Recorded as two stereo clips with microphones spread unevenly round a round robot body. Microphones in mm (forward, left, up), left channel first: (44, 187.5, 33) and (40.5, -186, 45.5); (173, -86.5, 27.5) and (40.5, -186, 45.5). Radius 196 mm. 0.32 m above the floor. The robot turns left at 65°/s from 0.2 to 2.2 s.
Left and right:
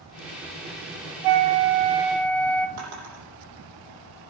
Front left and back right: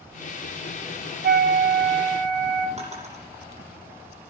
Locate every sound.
1.2 s a flute: 120° right, 0.9 m; by 2.7 s 175° left, 0.9 m
2.8 s a drawer: 95° right, 8 m